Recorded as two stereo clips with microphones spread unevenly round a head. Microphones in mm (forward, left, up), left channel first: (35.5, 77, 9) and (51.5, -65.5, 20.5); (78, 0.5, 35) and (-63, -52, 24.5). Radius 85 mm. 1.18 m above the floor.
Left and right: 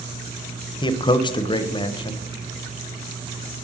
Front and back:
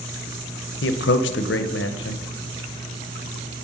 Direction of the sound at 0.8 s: 35° left.